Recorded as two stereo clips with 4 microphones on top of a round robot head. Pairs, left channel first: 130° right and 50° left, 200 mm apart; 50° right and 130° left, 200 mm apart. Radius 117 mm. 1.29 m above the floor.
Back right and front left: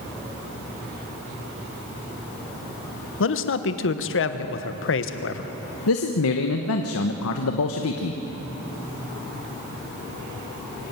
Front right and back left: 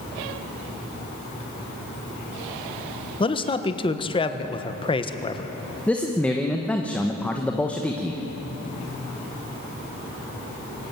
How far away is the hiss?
I don't hear a hiss.